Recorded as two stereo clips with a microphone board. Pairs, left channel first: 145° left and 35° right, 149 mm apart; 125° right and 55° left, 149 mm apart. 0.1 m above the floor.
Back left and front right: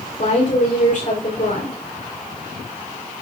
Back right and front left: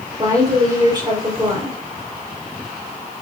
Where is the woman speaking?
115° left, 5.5 m.